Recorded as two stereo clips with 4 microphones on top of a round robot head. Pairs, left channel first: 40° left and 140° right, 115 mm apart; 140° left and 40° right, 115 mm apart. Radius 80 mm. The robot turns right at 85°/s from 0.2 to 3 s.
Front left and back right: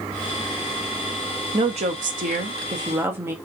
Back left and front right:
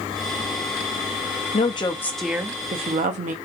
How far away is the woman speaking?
About 0.6 m.